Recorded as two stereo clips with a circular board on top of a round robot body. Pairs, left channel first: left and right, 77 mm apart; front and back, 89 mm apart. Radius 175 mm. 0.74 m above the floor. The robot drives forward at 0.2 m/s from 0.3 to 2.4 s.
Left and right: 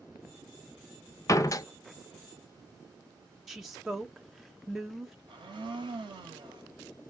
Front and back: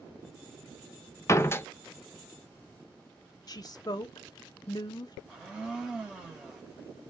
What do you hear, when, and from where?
1.3 s a door slam: 50° left, 0.5 m; by 1.7 s 60° left, 0.5 m
3.5 s a woman speaking: 5° right, 0.6 m
5.3 s a blender: 95° right, 0.7 m